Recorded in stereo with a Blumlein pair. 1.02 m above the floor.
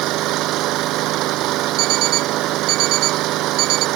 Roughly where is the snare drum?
I don't hear a snare drum.